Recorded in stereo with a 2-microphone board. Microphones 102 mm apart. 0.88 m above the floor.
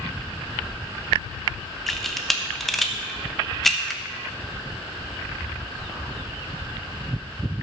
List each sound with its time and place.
1.9 s a camera shutter: centre (ahead or behind), 0.9 m